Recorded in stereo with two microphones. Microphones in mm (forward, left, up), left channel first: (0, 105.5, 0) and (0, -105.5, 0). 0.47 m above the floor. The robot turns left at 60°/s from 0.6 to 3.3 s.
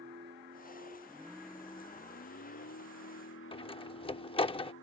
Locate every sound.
0.0 s a vehicle: 130° right; by 4.8 s 65° left
3.5 s a door slam: 25° left (ahead or behind)